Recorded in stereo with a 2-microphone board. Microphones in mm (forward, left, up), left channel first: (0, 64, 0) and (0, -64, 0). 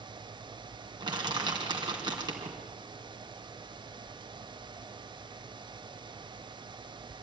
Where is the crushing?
35° right (ahead or behind), 3.5 m.